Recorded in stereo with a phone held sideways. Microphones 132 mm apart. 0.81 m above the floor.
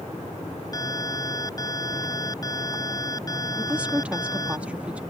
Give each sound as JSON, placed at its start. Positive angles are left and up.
{"t": 0.7, "sound": "an alarm", "side_deg": 30}
{"t": 3.6, "sound": "a woman speaking", "side_deg": -10}